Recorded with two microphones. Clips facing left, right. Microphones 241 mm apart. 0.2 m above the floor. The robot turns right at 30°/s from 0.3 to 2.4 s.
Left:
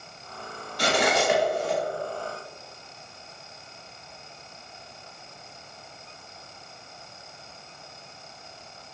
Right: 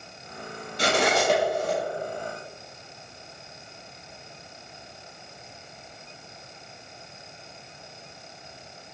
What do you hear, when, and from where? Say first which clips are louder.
0.8 s cutlery clinking: even; 25° right (ahead or behind), 2 m; by 1.8 s 50° right (ahead or behind), 2 m